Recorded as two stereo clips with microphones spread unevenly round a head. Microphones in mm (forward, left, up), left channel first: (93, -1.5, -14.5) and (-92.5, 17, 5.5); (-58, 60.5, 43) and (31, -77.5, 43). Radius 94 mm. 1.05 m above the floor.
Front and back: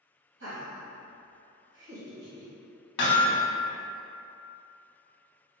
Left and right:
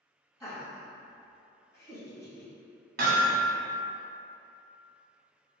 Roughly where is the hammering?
Ahead right.